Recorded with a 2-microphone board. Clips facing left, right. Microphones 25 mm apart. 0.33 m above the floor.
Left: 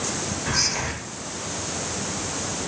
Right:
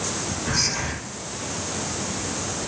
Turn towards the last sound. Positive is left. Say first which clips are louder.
# left 1 dB
turn(degrees=20)  # may be behind; listen again after turning